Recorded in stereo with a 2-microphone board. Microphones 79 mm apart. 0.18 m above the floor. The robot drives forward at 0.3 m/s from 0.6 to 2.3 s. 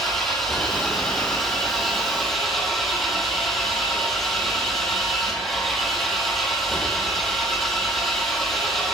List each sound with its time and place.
0.0 s an engine running: 5° left (ahead or behind), 4.5 m